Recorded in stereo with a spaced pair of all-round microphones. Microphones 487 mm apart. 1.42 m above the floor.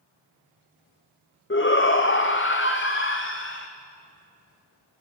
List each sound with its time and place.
1.5 s a shout: 25° left (ahead or behind), 0.7 m